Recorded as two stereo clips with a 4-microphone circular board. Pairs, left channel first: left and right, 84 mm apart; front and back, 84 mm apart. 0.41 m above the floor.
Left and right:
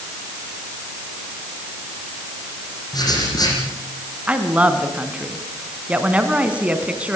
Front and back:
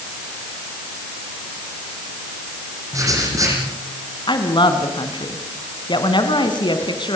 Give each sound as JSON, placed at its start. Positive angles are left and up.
{"t": 2.9, "sound": "writing", "azimuth_deg": 130, "distance_m": 9.5}
{"t": 4.3, "sound": "a woman speaking", "azimuth_deg": -15, "distance_m": 3.0}